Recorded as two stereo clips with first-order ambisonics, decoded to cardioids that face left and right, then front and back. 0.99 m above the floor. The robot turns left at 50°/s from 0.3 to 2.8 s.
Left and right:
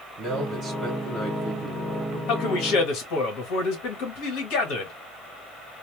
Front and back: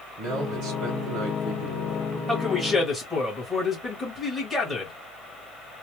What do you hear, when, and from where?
0.2 s a man speaking: 145° right, 1.3 m; by 2.2 s 120° left, 1.3 m
2.3 s a man speaking: 105° left, 1.5 m; by 4.9 s 80° left, 1.5 m